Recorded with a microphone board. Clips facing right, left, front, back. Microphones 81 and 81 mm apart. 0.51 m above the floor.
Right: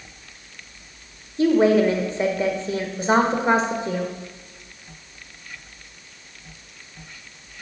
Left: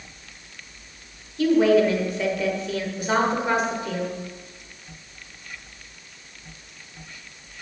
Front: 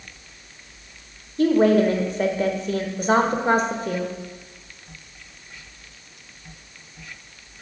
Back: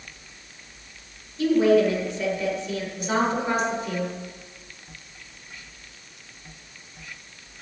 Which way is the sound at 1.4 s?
35° right.